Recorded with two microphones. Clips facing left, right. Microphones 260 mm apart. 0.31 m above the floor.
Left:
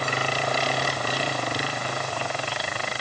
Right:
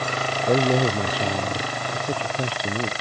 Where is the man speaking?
70° right (ahead or behind); by 2.9 s 60° right (ahead or behind).